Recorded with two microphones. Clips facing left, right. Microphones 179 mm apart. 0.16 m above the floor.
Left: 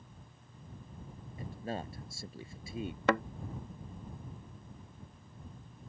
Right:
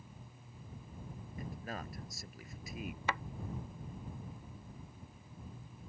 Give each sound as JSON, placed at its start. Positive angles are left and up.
{"t": 1.4, "sound": "a man speaking", "side_deg": 30}
{"t": 3.1, "sound": "a thud", "side_deg": 65}